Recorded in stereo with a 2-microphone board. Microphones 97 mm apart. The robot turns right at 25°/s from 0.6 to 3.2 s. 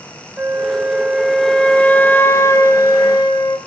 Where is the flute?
15° right, 1.9 m; by 3.6 s 50° left, 1.9 m.